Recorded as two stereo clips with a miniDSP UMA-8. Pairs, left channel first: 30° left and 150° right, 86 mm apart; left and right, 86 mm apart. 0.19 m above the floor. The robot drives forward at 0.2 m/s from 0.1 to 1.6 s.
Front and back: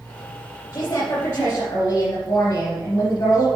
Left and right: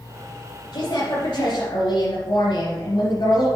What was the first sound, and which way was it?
A woman speaking, 85° left.